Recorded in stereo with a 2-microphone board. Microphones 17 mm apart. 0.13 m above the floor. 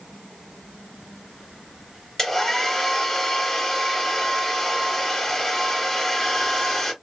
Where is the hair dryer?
15° left (ahead or behind), 2.0 m.